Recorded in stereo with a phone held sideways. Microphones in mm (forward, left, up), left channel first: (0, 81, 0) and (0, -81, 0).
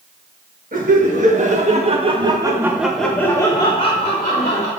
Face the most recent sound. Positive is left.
turn(degrees=45)  # may be behind; listen again after turning